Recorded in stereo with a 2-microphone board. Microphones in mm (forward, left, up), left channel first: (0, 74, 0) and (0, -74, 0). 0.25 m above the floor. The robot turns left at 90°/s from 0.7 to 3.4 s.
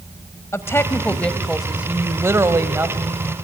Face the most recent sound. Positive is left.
turn(degrees=-5)  # may be behind; listen again after turning